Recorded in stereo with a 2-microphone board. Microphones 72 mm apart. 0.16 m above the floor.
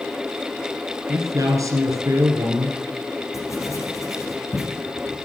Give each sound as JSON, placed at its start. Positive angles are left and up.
{"t": 1.1, "sound": "a man speaking", "side_deg": -50, "distance_m": 2.0}
{"t": 3.3, "sound": "writing", "side_deg": 45, "distance_m": 6.5}